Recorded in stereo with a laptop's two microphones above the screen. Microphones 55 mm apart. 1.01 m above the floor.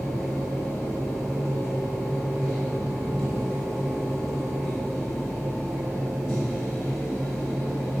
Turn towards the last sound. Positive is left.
turn(degrees=-5)  # may be behind; listen again after turning